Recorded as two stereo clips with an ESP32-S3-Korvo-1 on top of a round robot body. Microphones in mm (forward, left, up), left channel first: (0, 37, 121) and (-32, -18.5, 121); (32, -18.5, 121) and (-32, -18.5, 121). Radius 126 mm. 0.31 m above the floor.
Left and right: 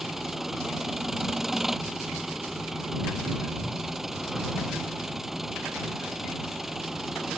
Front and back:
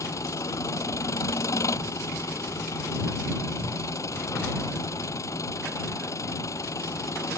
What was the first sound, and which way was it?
An engine running, 35° right.